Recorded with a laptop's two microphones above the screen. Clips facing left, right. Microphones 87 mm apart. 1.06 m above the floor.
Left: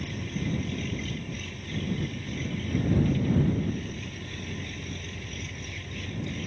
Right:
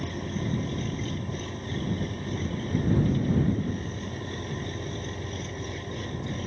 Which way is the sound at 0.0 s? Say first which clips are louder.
Right 2 dB; 40° right (ahead or behind).